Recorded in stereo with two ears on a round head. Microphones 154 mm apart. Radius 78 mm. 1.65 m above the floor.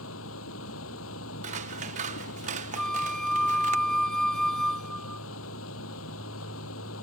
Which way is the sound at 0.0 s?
85° left.